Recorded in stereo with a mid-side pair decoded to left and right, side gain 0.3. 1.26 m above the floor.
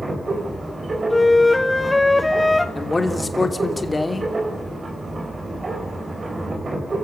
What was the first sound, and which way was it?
A machine running, 50° right.